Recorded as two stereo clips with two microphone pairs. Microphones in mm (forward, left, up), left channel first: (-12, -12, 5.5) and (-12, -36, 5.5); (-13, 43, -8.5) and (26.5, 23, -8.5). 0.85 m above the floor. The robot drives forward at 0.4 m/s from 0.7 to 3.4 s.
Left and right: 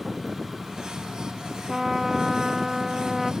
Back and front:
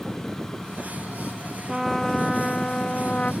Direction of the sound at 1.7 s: 105° right.